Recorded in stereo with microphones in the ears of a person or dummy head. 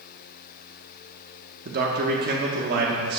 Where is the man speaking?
50° right (ahead or behind), 1.0 m.